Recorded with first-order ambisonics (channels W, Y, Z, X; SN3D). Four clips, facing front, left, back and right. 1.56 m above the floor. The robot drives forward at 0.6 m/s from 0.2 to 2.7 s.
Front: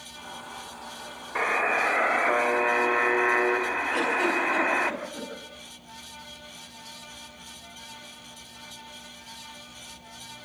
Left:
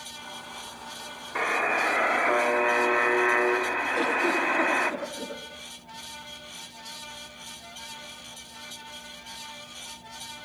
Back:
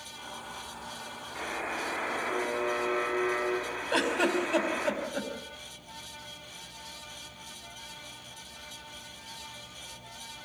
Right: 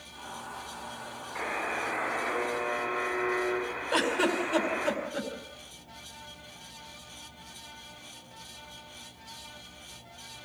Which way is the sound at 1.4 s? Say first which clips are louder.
Left 8 dB, front 11 dB; 45° left.